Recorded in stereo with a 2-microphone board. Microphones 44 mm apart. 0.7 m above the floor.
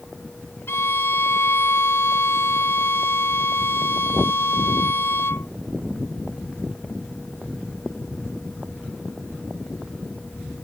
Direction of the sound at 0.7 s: 65° left (ahead or behind).